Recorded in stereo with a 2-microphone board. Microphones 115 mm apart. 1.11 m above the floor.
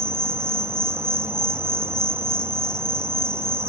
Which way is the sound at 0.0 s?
20° right (ahead or behind).